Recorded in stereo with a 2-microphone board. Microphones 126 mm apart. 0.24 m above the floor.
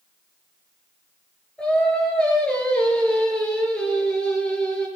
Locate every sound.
1.6 s singing: 10° left (ahead or behind), 4.5 m